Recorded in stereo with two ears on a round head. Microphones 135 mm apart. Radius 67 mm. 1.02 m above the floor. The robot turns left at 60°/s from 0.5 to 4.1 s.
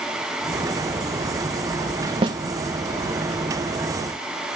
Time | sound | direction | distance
2.2 | a snare drum | 35° right (ahead or behind) | 1.1 m